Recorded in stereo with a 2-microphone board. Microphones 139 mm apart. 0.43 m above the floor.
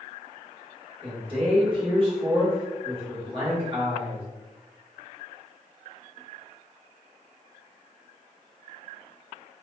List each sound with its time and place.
1.0 s a man speaking: 40° right (ahead or behind), 1.2 m